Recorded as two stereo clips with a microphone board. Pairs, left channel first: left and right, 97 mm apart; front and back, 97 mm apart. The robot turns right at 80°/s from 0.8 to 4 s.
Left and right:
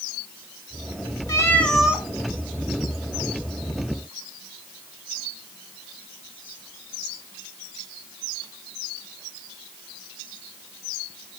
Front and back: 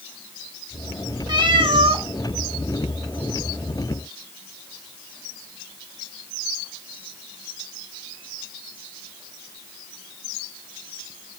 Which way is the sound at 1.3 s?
140° left.